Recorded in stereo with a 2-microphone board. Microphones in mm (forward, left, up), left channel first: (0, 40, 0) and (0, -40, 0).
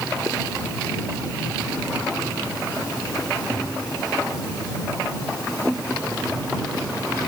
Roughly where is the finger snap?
No finger snap in this recording.